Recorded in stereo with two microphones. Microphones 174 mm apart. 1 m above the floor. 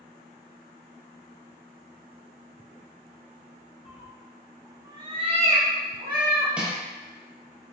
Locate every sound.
3.9 s a cat meowing: 35° left (ahead or behind), 0.6 m; by 6.5 s 65° right (ahead or behind), 1.1 m
6.6 s crushing: 5° right (ahead or behind), 1.0 m